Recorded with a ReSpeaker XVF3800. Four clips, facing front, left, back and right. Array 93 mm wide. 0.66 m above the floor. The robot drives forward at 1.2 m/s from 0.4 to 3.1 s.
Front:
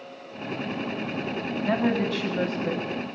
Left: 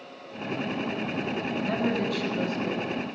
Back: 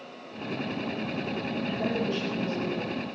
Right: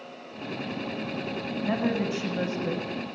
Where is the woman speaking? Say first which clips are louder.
Right 1 dB, front 6 dB; 20° right, 4.5 m; by 2.9 s 30° right, 3 m.